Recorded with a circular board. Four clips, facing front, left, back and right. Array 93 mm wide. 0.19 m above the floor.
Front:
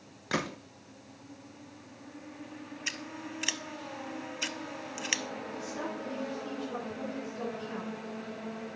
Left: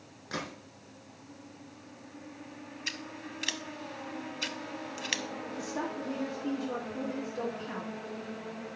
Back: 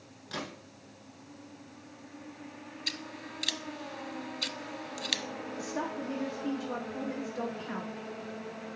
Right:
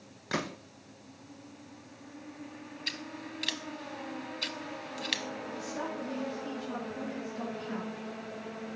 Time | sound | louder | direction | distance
0.3 | a gunshot | right 4 dB, front 7 dB | 25° right | 0.9 m
2.9 | scissors | right 1 dB, front 2 dB | 15° left | 0.6 m
5.6 | a woman speaking | left 2 dB, back 4 dB | 155° left | 3 m